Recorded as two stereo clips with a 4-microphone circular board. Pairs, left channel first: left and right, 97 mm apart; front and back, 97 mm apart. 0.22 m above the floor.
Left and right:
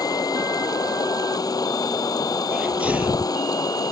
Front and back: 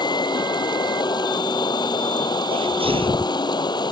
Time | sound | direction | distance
0.0 | running water | 40° left | ?
2.5 | a sneeze | 165° right | ?